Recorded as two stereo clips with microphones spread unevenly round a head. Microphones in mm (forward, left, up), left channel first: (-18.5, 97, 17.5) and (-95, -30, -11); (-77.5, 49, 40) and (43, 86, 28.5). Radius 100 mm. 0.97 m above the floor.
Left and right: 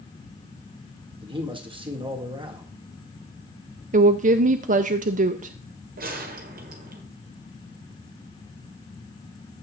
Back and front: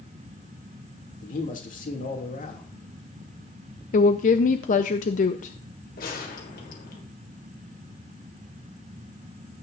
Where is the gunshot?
145° right, 1.5 m.